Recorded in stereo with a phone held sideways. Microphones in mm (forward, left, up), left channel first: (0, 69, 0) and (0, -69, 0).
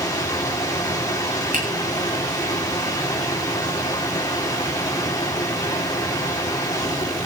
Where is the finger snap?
80° right, 8.5 m.